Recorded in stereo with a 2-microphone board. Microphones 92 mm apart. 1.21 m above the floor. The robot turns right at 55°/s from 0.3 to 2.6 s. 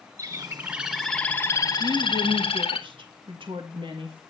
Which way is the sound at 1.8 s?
115° right.